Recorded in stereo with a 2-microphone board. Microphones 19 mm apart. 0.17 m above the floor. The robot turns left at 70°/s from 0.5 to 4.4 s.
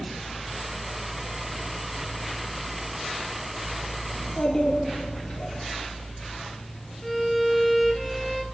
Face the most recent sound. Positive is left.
turn(degrees=5)  # may be behind; listen again after turning